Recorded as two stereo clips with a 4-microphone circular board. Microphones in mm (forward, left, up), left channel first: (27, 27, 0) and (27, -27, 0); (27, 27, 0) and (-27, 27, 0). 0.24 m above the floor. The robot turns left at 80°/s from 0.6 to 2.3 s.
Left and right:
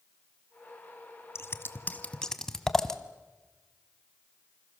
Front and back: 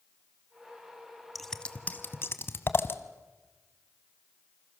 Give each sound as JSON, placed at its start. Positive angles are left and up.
{"t": 1.4, "sound": "scissors", "azimuth_deg": 90, "distance_m": 1.3}